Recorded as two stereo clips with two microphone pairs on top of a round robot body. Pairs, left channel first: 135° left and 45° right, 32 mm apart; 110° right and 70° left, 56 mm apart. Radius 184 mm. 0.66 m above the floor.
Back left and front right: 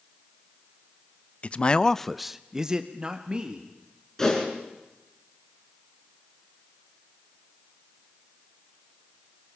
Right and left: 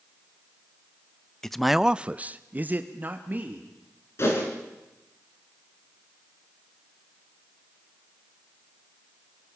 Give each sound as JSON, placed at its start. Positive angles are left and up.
{"t": 1.4, "sound": "a man speaking", "azimuth_deg": 170, "distance_m": 0.8}
{"t": 4.2, "sound": "a whoosh", "azimuth_deg": -150, "distance_m": 4.5}